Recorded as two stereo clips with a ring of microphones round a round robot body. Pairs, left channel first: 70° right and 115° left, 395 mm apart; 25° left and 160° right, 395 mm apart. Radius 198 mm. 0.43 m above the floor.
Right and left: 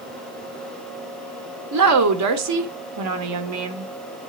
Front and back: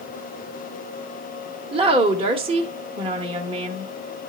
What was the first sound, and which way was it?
A woman speaking, 130° left.